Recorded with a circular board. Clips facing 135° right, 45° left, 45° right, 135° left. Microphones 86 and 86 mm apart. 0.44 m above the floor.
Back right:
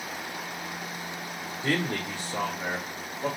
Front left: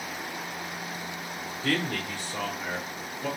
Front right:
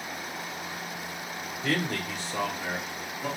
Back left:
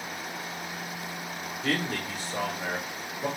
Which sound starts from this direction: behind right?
A man speaking, at 1.6 s.